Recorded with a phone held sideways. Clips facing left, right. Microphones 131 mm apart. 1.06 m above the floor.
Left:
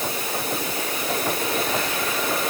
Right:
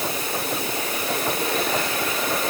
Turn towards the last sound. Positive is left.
No sound to turn to.